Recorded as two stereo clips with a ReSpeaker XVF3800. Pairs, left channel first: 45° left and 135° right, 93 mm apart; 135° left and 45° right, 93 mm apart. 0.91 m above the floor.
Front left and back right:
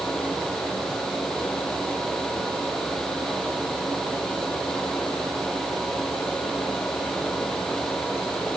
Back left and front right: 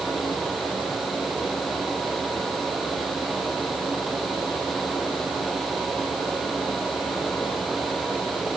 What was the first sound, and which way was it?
Only background noise.